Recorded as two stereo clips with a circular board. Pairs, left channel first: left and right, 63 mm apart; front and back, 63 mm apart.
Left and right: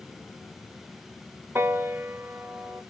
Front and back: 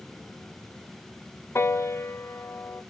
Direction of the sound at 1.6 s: 40° right.